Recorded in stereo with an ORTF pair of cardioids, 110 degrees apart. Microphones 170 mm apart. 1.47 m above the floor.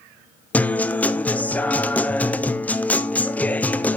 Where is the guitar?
10° left, 0.7 m.